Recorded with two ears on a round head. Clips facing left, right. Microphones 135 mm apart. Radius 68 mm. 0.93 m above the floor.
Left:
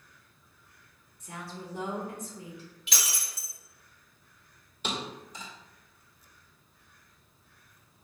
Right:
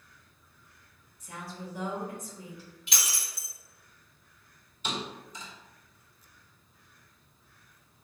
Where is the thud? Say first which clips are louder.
Even; 50° left (ahead or behind), 1.6 m.